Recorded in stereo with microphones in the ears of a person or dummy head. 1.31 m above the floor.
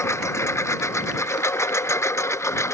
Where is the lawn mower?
15° left (ahead or behind).